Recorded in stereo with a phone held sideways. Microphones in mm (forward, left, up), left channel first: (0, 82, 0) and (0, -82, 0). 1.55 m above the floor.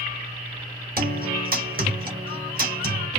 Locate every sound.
1.0 s a guitar: 60° right (ahead or behind), 1.1 m